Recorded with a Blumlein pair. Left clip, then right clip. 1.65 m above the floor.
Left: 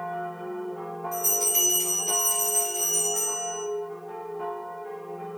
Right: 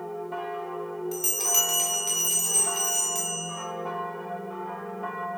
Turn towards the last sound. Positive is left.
turn(degrees=-65)